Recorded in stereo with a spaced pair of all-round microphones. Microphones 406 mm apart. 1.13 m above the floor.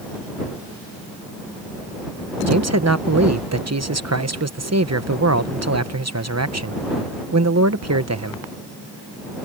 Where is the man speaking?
40° right (ahead or behind).